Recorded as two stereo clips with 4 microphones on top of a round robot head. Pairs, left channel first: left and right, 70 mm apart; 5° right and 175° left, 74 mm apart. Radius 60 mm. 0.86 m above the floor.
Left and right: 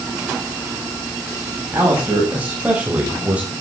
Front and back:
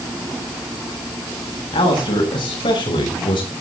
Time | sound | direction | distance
1.7 | a man speaking | 20° right | 6 m